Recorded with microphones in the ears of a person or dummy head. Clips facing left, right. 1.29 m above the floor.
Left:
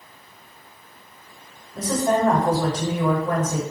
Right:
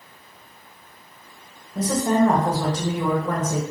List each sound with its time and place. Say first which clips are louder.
1.8 s a woman speaking: right 1 dB; 85° right, 1.4 m